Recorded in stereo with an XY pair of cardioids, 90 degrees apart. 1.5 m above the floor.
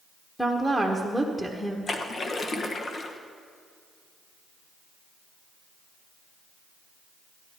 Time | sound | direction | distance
0.4 | a woman speaking | 5° left | 1.4 m
1.9 | a splash | 45° left | 1.2 m